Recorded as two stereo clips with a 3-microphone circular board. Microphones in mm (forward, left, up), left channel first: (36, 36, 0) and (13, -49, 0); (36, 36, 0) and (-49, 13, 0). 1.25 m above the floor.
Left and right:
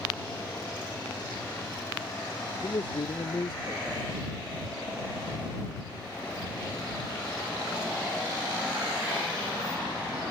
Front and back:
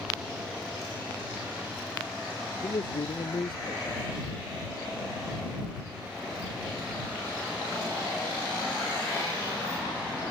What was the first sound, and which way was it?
A man speaking, 40° left.